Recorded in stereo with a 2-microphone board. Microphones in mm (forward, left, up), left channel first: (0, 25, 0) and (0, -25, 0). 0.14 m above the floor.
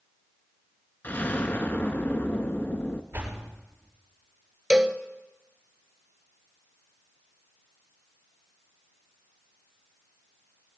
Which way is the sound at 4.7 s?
15° right (ahead or behind).